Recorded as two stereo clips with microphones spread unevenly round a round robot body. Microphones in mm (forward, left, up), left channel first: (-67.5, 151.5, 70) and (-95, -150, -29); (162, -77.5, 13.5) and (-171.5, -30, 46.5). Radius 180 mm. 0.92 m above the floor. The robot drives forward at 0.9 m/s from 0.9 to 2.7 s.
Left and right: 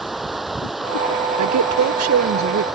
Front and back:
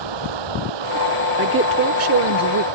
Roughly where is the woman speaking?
Behind right.